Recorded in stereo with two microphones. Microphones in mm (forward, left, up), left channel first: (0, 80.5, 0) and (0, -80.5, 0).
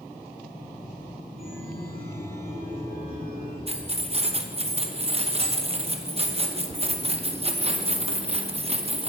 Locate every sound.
1.4 s a chime: 75° left (ahead or behind), 5 m
3.7 s keys jangling: 40° right (ahead or behind), 0.8 m